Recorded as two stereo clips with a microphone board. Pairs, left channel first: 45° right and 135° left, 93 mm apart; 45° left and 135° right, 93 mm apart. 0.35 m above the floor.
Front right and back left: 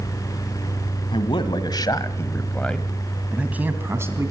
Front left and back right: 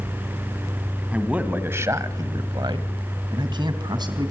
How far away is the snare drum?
I don't hear a snare drum.